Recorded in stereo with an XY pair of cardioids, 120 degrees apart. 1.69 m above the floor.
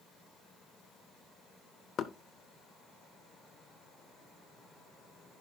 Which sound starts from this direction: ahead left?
Knocking, at 2.0 s.